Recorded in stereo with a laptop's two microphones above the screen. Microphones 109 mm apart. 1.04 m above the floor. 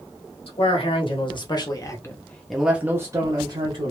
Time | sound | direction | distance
0.5 | a man speaking | 60° left (ahead or behind) | 1.3 m